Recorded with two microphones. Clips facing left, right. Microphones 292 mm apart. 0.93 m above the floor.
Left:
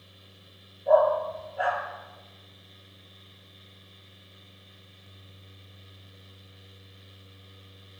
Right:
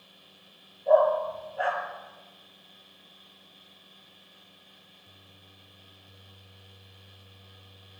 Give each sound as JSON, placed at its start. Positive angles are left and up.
{"t": 0.9, "sound": "a dog barking", "side_deg": 0, "distance_m": 4.5}